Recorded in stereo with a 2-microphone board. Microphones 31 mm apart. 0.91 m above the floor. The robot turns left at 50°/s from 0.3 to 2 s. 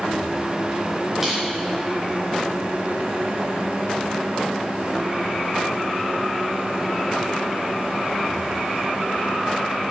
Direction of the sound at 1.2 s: 10° right (ahead or behind).